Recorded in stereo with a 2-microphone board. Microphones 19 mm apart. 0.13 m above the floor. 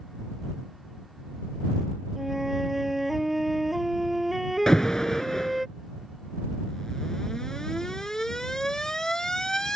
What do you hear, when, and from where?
2.2 s a flute: 10° right (ahead or behind)
4.7 s an alarm: 30° left (ahead or behind)